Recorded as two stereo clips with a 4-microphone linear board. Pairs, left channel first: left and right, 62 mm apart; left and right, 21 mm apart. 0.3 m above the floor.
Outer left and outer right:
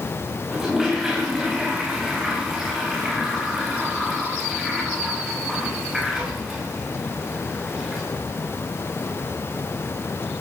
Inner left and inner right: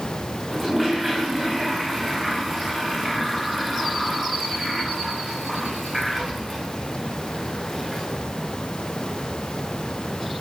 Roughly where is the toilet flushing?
Centre.